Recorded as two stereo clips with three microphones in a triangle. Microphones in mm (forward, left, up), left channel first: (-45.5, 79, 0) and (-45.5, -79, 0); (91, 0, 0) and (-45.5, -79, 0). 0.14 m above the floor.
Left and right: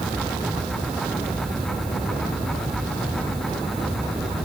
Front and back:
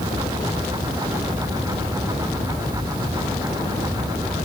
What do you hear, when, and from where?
Only background noise.